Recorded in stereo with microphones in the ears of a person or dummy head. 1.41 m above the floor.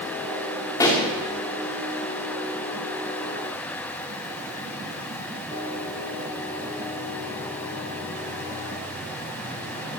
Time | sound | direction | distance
0.8 | a pop | 15° left (ahead or behind) | 3 m